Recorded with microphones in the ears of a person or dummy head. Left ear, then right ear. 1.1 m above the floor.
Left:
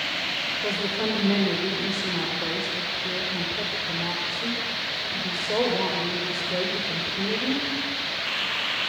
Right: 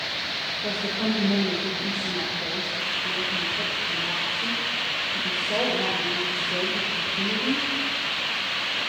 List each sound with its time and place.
0.6 s a woman speaking: 80° left, 4.5 m